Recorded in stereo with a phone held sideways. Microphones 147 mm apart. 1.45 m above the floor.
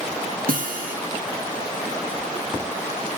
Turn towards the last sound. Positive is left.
turn(degrees=-80)